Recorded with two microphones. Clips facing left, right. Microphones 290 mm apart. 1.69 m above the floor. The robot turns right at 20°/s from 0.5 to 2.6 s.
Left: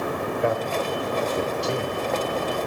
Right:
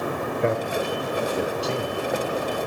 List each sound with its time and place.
0.4 s a man speaking: 25° right (ahead or behind), 0.7 m; by 2.1 s 5° left (ahead or behind), 0.7 m